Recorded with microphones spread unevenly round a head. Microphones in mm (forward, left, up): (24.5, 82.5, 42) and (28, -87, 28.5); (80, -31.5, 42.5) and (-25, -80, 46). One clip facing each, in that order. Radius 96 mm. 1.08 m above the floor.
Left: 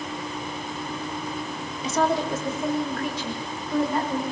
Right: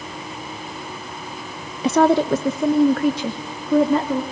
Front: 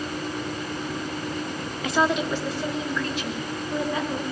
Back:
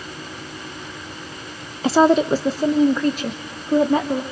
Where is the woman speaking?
95° right, 0.8 m; by 4.2 s 105° right, 3 m.